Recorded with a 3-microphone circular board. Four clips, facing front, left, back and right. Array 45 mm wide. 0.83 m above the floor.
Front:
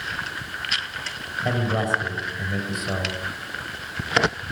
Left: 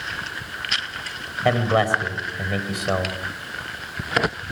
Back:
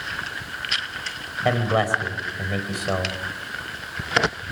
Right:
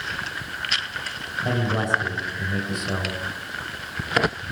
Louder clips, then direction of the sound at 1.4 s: Left 5 dB, back 3 dB; 120° left.